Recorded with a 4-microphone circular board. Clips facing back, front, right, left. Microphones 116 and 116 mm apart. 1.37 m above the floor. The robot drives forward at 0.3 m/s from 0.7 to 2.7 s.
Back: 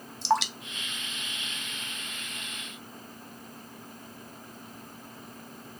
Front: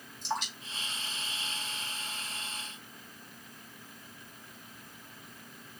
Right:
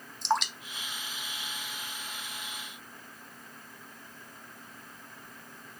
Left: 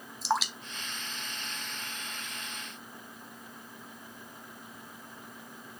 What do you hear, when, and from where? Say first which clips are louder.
0.2 s dripping: back 10 dB, right 1 dB; 175° left, 0.6 m; by 2.3 s straight behind, 1.1 m